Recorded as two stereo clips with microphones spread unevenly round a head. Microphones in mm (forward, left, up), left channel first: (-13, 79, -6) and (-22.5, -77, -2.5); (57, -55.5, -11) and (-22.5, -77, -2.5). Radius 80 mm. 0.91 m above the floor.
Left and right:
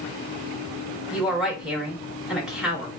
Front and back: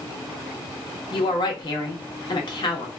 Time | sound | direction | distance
1.1 | a woman speaking | 5° right | 1.1 m